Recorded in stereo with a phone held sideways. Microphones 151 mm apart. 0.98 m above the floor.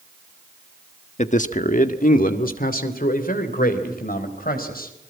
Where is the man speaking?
50° left (ahead or behind), 1.2 m; by 4.9 s 80° left, 4.5 m.